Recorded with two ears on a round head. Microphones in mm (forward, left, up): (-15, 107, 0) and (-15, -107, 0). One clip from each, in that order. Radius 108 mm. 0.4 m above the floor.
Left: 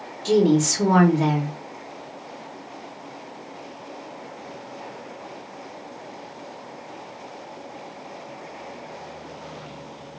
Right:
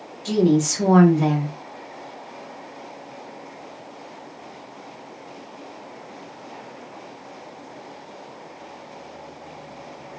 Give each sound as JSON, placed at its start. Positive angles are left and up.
{"t": 0.2, "sound": "a woman speaking", "side_deg": 10, "distance_m": 1.1}